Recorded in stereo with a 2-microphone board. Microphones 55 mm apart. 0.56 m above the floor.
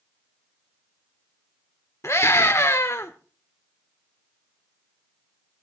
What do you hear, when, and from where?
2.0 s a scream: 55° left (ahead or behind), 1.2 m